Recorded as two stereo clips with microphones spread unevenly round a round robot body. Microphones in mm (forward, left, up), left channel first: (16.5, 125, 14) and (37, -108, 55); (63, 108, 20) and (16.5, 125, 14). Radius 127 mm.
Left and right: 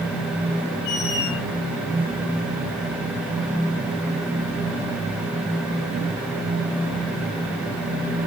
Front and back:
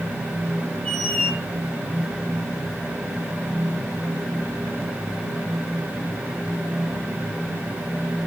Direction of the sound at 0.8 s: 55° left.